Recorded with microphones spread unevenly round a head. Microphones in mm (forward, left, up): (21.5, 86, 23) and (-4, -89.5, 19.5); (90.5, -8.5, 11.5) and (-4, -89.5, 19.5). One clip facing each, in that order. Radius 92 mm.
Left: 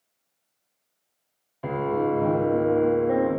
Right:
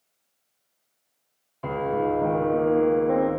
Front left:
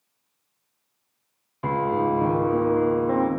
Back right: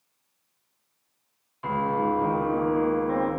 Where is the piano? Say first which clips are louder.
Even, front left 2 dB; straight ahead, 0.9 m.